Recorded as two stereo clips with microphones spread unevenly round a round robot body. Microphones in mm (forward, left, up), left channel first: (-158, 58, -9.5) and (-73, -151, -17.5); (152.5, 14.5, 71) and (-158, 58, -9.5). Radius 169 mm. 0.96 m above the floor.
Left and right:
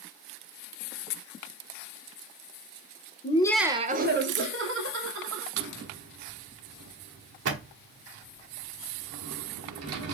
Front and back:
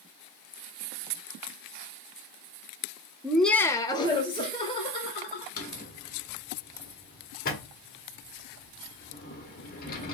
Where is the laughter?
115° left, 0.6 m; by 5.5 s 85° right, 2 m.